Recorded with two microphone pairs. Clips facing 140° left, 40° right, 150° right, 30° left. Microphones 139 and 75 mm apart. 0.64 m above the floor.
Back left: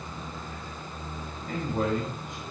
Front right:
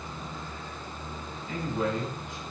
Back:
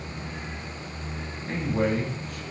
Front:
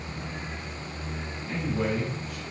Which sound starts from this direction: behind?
A man speaking, at 1.5 s.